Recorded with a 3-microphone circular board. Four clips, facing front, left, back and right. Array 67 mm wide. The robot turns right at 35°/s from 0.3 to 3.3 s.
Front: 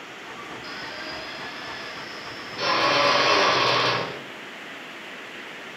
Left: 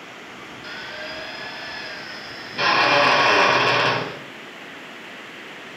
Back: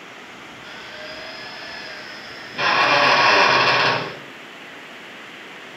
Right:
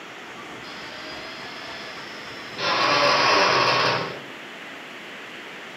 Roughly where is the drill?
Left.